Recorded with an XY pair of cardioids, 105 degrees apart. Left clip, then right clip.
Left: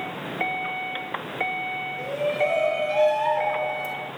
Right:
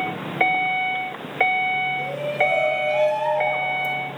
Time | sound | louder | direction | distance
2.0 | a shout | right 2 dB | straight ahead | 5 m